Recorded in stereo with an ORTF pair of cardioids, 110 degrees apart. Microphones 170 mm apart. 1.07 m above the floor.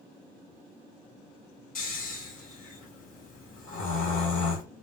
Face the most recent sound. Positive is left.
turn(degrees=55)